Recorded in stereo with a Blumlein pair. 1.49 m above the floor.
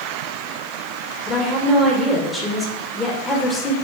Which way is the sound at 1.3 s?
10° left.